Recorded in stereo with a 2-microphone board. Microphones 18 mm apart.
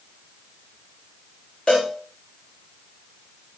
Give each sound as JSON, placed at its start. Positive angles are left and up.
{"t": 1.7, "sound": "a cowbell", "side_deg": 55, "distance_m": 6.5}